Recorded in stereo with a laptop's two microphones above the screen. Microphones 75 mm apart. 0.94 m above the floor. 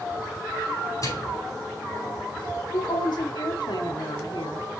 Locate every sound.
1.0 s a microwave: 45° left (ahead or behind), 5.5 m
2.7 s a woman speaking: 80° left, 1.6 m